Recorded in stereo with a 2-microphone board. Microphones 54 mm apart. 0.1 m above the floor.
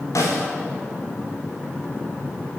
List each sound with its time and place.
0.1 s a snare drum: 75° left (ahead or behind), 8.5 m